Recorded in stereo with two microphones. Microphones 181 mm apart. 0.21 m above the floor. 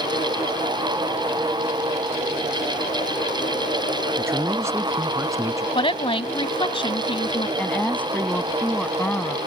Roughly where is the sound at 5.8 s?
Left.